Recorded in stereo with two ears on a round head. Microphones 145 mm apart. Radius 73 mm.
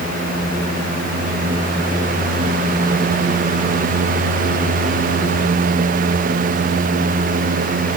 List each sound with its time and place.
Only background noise.